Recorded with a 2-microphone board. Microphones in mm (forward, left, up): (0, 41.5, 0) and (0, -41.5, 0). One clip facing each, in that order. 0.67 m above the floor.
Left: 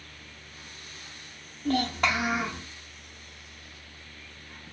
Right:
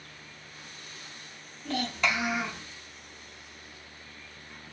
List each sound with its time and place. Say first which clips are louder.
1.6 s a child speaking: left 4 dB; 45° left (ahead or behind), 1.2 m